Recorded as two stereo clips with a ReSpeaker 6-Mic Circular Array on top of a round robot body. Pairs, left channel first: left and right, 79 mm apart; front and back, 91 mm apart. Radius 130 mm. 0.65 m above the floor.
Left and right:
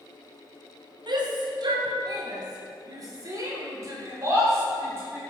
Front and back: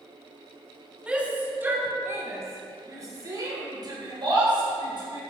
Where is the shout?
105° right, 2.5 m; by 5.2 s 150° right, 4.5 m.